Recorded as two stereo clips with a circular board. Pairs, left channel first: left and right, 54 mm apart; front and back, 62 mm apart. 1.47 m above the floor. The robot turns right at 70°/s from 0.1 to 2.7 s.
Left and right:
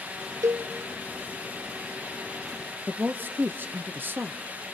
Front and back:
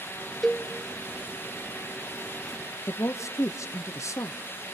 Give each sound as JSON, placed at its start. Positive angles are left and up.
{"t": 0.4, "sound": "a cowbell", "azimuth_deg": -90, "distance_m": 0.5}
{"t": 2.9, "sound": "a woman speaking", "azimuth_deg": -40, "distance_m": 0.6}